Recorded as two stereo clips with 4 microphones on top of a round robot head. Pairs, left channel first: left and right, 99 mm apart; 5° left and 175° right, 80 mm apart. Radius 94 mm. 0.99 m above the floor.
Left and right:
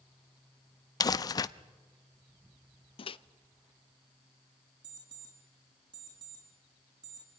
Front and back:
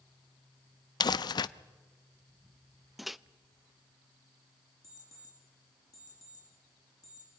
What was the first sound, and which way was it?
Crumpling, 40° left.